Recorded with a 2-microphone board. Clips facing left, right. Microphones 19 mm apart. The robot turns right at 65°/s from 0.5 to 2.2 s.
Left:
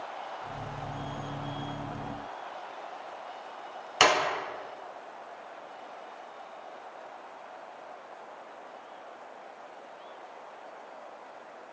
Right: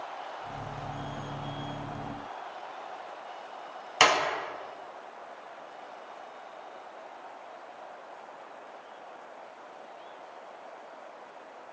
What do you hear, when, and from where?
4.0 s a clap: 5° right (ahead or behind), 1.1 m